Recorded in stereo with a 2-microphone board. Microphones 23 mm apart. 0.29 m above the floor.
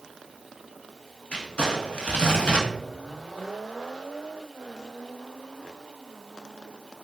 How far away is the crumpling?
About 0.7 m.